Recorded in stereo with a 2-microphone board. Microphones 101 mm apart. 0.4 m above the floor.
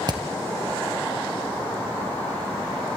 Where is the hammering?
45° right (ahead or behind), 2.5 m.